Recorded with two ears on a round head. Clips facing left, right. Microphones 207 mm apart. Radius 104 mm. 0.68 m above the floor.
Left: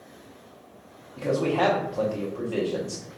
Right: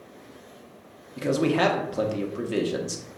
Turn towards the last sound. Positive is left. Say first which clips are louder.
# right 1 dB
turn(degrees=-25)  # may be behind; listen again after turning